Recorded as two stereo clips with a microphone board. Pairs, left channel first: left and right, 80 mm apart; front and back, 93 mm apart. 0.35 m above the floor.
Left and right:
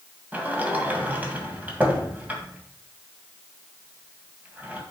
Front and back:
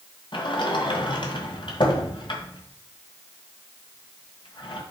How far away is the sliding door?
About 1.7 m.